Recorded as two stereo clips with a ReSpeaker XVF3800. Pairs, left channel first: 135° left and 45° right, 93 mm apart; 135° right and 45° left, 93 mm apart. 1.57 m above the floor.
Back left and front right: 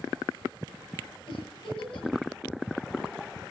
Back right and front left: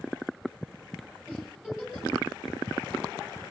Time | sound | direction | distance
1.3 | a giggle | 125° left | 8.5 m